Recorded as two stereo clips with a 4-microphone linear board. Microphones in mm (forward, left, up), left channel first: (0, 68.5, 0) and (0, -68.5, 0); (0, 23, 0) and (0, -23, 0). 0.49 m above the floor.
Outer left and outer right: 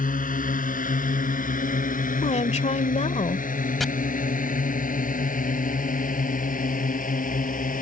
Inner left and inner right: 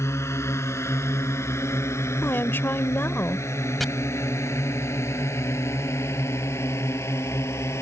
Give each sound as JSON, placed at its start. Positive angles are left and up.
{"t": 0.0, "sound": "a drone", "side_deg": 75}
{"t": 2.2, "sound": "a woman speaking", "side_deg": 55}
{"t": 3.8, "sound": "chopping", "side_deg": 0}